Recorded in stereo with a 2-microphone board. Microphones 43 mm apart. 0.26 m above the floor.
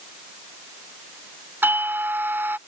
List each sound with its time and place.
1.6 s a doorbell: 50° right (ahead or behind)